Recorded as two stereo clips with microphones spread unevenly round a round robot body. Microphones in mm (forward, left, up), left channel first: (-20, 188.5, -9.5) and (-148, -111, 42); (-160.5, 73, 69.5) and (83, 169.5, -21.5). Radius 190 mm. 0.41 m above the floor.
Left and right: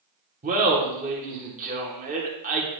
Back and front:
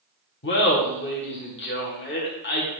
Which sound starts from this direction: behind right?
Laughter, at 0.4 s.